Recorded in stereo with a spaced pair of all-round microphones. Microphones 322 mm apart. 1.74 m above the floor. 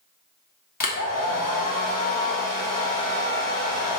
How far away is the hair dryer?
About 0.6 m.